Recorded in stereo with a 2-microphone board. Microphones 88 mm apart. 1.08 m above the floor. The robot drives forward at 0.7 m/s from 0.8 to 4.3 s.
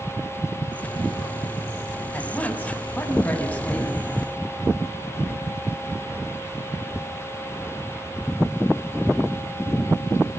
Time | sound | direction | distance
2.1 | a woman speaking | 20° left (ahead or behind) | 6.5 m